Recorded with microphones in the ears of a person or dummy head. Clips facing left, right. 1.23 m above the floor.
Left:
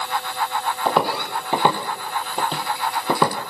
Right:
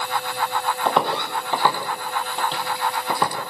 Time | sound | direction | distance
0.8 | footsteps | centre (ahead or behind) | 2.5 m